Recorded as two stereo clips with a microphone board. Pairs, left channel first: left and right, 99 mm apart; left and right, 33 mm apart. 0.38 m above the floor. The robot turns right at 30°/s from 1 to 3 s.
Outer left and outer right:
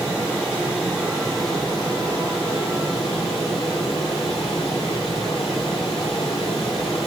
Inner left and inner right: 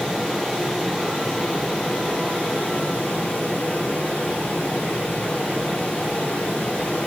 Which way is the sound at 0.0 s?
30° left.